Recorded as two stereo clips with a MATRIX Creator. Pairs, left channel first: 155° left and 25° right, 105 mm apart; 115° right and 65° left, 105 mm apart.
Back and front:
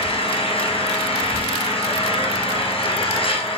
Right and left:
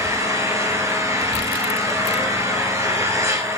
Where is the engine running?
130° left, 2.5 m.